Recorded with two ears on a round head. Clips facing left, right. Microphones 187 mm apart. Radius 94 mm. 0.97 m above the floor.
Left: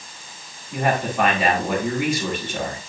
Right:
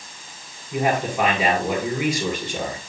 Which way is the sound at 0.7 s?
10° right (ahead or behind).